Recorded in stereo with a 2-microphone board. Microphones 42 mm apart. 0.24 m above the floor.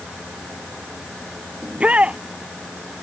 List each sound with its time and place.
1.6 s a shout: 30° right (ahead or behind)